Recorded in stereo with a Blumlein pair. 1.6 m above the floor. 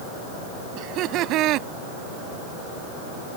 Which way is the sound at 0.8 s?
35° right.